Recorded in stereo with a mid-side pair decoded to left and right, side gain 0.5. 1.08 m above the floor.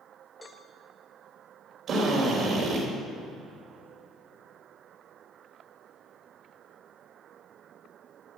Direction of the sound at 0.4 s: 15° left.